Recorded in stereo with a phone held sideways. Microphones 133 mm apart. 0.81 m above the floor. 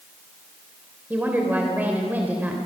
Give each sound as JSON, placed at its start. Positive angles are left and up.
{"t": 1.1, "sound": "a woman speaking", "side_deg": -15, "distance_m": 3.0}